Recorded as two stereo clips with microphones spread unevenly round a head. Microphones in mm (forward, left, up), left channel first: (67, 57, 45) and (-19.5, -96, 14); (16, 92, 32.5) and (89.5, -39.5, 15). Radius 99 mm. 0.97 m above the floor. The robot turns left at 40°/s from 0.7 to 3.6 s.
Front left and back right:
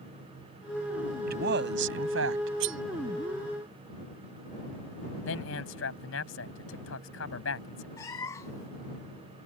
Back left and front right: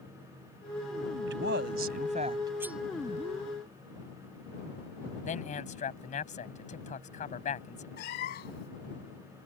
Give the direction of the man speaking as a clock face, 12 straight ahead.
9 o'clock.